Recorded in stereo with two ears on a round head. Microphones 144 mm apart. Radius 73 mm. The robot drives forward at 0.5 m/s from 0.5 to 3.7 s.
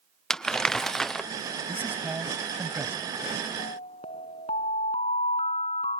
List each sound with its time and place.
0.3 s crumpling: 5° left (ahead or behind); by 1.3 s centre (ahead or behind)
1.7 s a man speaking: 10° right (ahead or behind)
3.6 s an alarm: 35° left (ahead or behind)